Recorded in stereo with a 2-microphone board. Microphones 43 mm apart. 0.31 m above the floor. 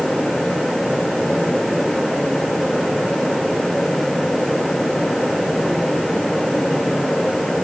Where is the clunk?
I don't hear a clunk.